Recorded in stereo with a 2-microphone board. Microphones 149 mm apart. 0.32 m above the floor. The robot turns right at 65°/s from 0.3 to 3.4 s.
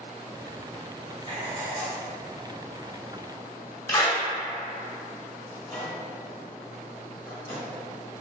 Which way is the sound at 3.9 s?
25° left (ahead or behind).